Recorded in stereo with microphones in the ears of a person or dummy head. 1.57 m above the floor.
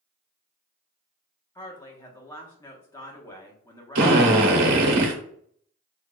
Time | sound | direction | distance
1.6 | a woman speaking | 15° left (ahead or behind) | 1.3 m
4.0 | a drill | 65° right (ahead or behind) | 1.1 m